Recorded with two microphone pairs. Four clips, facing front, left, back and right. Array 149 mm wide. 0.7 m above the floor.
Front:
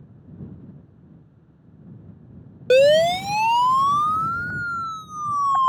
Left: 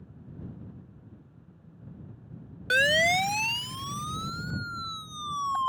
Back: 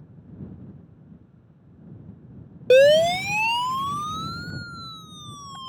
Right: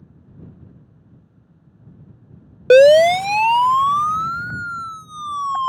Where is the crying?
No crying in this recording.